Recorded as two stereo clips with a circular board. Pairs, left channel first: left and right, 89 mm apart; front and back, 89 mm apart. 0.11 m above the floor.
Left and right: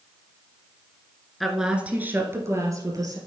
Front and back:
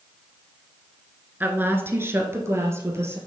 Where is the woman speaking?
Straight behind, 1.1 m; by 3.2 s 125° right, 2.0 m.